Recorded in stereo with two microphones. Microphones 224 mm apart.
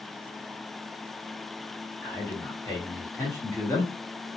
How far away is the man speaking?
About 1.0 m.